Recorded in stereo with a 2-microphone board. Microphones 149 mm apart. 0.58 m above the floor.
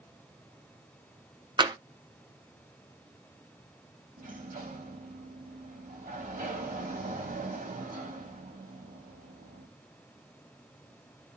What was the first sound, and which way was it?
Tapping, 30° right (ahead or behind).